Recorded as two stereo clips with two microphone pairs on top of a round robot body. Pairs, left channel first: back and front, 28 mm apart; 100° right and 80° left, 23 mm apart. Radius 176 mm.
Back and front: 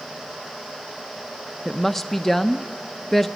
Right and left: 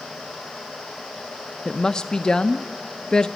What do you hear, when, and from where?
1.6 s a woman speaking: 95° right, 0.8 m